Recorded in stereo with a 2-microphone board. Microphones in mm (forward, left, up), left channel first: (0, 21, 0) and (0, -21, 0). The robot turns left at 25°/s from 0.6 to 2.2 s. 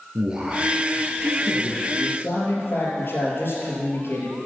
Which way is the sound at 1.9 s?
60° left (ahead or behind).